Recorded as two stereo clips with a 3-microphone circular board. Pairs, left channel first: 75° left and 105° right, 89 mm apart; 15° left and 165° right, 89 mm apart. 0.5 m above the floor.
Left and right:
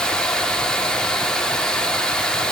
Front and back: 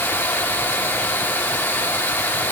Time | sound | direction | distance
0.0 | running water | 5° left | 0.7 m